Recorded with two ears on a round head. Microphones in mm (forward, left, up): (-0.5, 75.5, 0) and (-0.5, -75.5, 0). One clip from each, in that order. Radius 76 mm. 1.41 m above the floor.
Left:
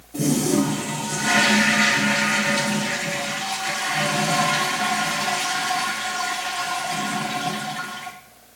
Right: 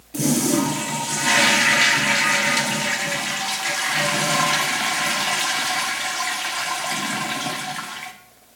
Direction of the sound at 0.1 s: 60° right (ahead or behind).